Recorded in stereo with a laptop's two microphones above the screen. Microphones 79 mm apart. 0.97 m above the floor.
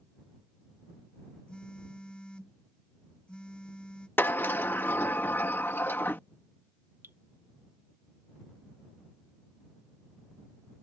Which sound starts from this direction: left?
A sliding door, at 4.2 s.